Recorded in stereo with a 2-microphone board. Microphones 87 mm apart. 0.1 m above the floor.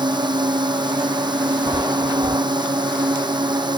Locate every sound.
0.0 s a drone: 55° right (ahead or behind)
1.7 s a chime: 50° right (ahead or behind)